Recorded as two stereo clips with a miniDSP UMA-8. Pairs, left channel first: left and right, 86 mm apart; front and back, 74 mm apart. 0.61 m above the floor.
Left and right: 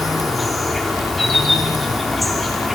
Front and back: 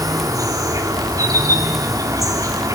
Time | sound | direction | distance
0.0 | an insect | straight behind | 2.5 m